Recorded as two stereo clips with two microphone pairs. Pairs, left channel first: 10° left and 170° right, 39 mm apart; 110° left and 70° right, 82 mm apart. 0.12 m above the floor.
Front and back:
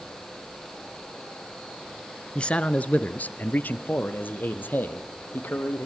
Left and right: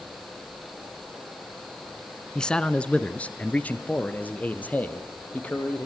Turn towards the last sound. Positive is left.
turn(degrees=40)